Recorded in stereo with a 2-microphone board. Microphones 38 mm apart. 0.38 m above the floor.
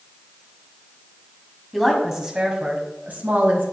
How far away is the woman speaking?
About 2.5 m.